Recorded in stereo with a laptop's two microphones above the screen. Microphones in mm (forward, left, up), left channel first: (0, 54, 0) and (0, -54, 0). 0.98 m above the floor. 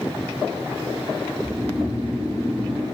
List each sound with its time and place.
1.4 s snoring: 10° right (ahead or behind), 6 m